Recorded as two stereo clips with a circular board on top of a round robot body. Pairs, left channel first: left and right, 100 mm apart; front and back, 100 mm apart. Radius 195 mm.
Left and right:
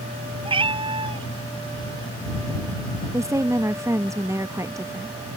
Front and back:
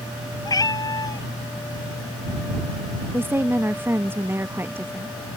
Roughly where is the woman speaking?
Behind right.